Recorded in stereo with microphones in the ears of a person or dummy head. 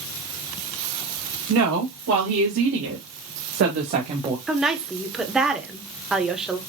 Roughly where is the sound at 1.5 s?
Right.